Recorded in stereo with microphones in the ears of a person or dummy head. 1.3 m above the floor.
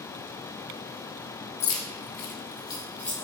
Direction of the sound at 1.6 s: 60° left (ahead or behind).